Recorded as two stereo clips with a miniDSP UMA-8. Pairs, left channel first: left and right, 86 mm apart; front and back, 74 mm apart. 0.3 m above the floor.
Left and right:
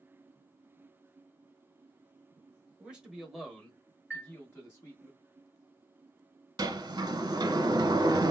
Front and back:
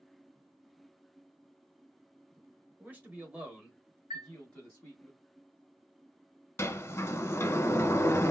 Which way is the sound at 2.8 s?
150° right.